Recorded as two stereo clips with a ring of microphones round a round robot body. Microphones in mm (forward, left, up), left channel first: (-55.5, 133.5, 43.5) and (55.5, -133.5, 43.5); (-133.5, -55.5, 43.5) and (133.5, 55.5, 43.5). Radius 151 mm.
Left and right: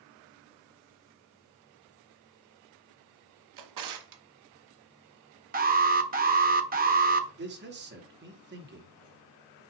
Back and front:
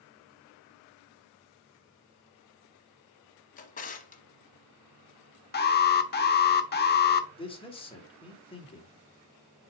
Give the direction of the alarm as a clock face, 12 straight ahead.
4 o'clock.